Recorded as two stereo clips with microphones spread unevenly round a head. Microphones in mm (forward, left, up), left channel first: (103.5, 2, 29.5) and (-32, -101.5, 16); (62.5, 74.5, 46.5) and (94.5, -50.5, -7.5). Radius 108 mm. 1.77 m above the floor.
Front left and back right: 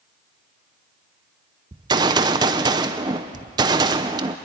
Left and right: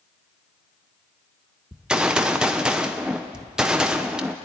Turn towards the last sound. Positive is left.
turn(degrees=160)